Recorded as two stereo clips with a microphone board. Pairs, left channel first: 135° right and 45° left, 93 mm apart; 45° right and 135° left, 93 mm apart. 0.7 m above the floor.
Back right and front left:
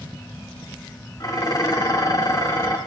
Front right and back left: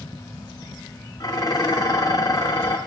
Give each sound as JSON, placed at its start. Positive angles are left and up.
{"t": 1.2, "sound": "dishes clattering", "azimuth_deg": -85, "distance_m": 1.2}